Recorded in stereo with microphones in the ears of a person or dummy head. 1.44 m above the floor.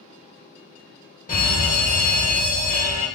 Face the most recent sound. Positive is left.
turn(degrees=40)  # may be behind; listen again after turning